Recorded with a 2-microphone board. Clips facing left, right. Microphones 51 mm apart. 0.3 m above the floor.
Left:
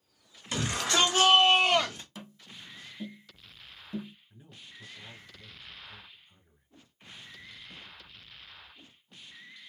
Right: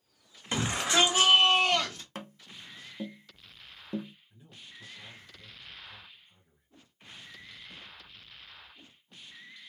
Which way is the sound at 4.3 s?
25° left (ahead or behind).